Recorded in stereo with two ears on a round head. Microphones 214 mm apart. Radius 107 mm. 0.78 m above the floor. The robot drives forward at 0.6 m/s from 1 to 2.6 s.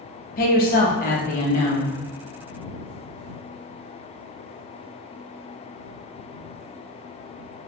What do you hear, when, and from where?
0.4 s a woman speaking: 40° left (ahead or behind), 0.8 m; by 1.9 s 30° left (ahead or behind), 1.0 m